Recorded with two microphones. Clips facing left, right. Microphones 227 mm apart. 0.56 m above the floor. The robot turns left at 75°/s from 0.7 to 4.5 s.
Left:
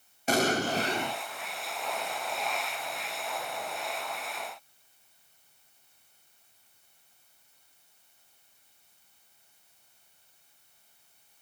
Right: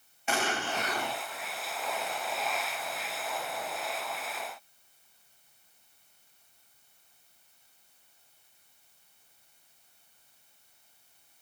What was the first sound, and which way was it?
An explosion, 50° left.